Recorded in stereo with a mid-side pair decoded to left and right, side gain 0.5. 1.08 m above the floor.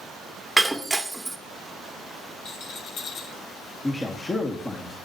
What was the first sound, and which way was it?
Breaking glass, 10° right.